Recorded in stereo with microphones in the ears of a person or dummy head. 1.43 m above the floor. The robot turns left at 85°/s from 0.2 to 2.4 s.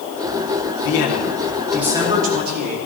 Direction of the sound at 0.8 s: 80° left.